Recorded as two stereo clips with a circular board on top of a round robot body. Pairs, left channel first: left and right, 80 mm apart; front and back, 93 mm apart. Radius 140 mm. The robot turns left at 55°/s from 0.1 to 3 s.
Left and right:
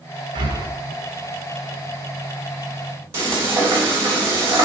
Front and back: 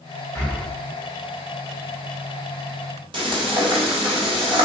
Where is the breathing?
65° right, 1.4 m; by 0.7 s 85° right, 1.4 m.